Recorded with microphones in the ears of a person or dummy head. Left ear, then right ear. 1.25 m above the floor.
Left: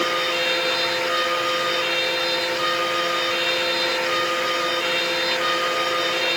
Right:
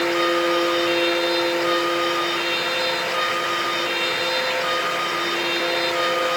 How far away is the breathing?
No breathing in this recording.